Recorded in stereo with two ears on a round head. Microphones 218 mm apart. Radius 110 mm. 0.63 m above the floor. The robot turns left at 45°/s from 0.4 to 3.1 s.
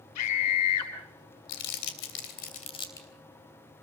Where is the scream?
80° left, 6 m; by 0.9 s 65° left (ahead or behind), 6 m.